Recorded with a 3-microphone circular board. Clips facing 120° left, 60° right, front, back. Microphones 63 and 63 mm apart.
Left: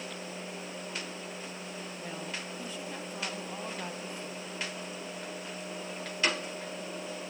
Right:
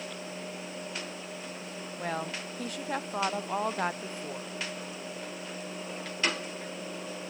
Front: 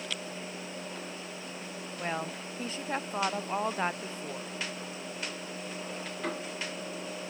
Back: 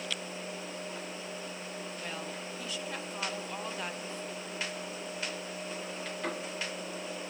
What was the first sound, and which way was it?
A woman speaking, 50° right.